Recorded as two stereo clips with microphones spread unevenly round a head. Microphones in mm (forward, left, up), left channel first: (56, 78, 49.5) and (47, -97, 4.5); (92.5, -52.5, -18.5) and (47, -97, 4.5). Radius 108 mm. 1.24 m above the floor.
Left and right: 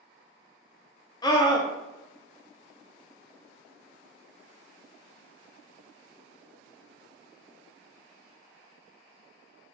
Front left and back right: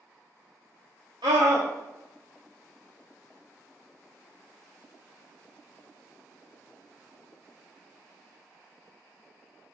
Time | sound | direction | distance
1.2 | a scream | 160° left | 0.6 m